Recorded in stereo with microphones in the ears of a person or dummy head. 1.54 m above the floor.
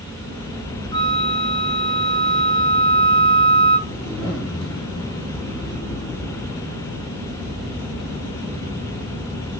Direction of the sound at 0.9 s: 25° left (ahead or behind).